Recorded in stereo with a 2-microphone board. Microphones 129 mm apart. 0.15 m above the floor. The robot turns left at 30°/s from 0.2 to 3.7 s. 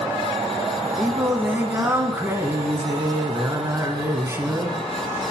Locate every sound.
1.0 s singing: 10° right (ahead or behind), 0.7 m; by 4.8 s 20° right (ahead or behind), 0.7 m